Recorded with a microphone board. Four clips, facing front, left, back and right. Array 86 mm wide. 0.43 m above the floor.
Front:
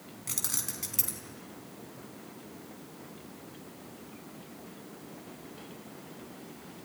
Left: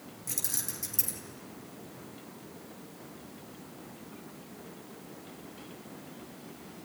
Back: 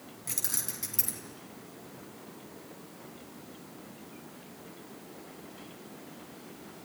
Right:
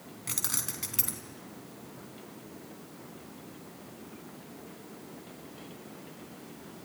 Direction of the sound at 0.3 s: 85° right.